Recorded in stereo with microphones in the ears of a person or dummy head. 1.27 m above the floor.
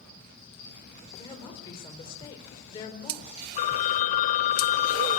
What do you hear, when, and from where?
1.1 s a woman speaking: 25° left (ahead or behind), 4.5 m
3.6 s a phone ringing: 40° left (ahead or behind), 1.0 m